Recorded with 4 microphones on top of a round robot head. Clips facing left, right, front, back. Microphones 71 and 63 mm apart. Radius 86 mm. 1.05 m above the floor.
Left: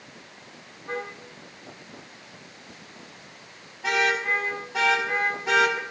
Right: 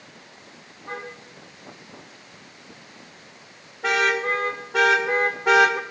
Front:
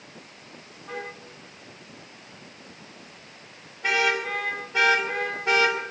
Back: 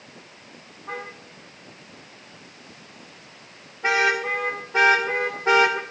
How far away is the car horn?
About 6.5 m.